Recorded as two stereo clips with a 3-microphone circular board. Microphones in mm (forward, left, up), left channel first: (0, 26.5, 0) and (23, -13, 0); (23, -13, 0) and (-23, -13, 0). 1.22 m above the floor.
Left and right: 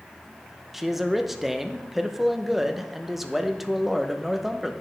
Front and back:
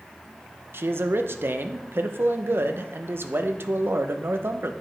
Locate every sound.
0.7 s a man speaking: 145° right, 0.6 m